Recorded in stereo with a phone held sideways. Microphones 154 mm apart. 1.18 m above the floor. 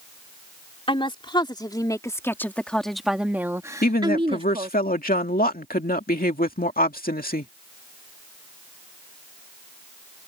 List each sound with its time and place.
0.9 s a woman speaking: 35° left (ahead or behind); by 4.8 s 45° right (ahead or behind)
3.8 s a woman speaking: 70° left (ahead or behind)